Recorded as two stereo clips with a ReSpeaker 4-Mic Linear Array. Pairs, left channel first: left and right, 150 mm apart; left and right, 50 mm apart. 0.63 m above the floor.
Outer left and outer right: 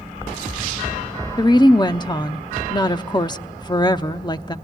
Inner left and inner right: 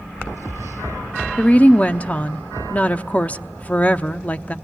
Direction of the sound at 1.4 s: 30° left (ahead or behind).